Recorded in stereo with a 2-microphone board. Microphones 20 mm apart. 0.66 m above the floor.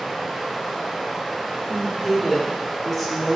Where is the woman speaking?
15° left (ahead or behind), 1.5 m.